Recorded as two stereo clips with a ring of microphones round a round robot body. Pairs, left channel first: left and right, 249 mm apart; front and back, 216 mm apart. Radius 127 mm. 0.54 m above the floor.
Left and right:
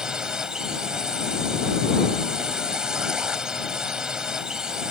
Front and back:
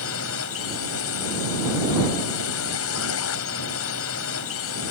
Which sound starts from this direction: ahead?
A drone, at 0.0 s.